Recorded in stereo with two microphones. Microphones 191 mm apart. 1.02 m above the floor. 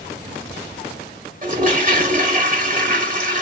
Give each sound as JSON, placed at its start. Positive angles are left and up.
{"t": 1.4, "sound": "a toilet flushing", "side_deg": -45, "distance_m": 1.3}